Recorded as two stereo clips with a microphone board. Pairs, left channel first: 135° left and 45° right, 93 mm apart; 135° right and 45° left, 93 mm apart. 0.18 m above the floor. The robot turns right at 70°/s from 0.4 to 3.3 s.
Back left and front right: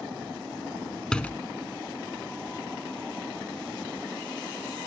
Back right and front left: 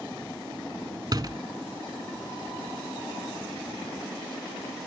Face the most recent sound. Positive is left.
turn(degrees=-150)